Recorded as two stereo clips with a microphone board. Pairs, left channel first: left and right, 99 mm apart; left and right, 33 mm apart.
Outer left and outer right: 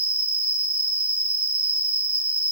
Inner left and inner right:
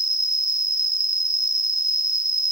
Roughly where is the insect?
Centre.